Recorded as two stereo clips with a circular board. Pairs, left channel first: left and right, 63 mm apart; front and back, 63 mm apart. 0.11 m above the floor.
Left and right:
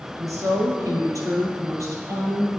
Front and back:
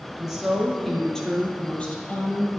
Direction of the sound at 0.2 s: 95° right.